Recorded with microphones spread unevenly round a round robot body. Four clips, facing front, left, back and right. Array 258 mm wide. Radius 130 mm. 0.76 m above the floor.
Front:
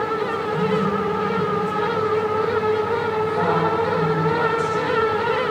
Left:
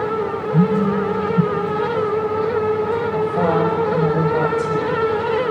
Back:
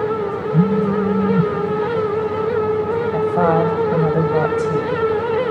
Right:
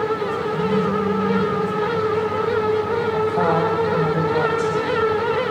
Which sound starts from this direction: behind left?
A phone buzzing, at 0.5 s.